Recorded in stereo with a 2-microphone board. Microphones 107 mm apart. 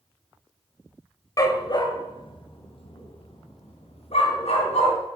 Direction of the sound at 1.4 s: 30° left (ahead or behind).